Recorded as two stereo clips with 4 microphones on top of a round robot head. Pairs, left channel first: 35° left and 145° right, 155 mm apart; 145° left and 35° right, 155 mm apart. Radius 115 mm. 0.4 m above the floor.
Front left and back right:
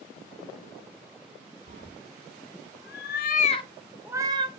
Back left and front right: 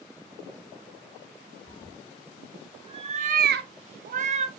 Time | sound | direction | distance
1.7 | a cat meowing | 40° left | 2.5 m